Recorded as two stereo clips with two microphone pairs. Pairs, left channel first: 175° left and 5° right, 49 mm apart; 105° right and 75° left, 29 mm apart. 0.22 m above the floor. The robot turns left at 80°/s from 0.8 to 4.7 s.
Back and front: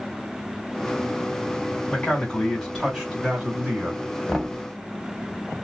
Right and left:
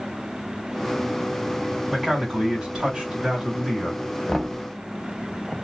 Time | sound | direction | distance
1.9 | a man speaking | 140° left | 1.6 m
4.3 | knocking | 125° right | 0.8 m